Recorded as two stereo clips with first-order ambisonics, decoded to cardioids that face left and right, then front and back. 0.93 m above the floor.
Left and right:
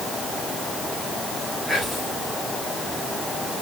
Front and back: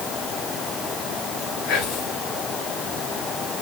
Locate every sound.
1.7 s whispering: 5° right, 1.2 m